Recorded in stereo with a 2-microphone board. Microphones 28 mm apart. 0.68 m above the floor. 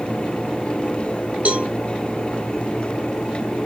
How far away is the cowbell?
About 1.5 m.